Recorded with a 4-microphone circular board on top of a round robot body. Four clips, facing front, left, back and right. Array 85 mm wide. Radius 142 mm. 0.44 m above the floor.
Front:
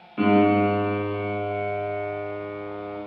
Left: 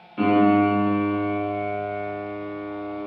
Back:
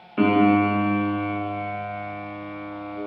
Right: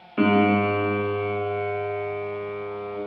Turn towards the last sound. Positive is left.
turn(degrees=-125)